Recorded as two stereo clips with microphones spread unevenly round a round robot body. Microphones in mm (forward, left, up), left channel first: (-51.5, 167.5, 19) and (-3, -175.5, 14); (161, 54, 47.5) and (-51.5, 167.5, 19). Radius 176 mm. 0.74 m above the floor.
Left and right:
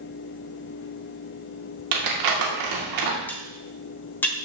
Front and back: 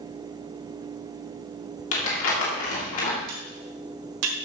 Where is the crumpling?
65° right, 2.5 m.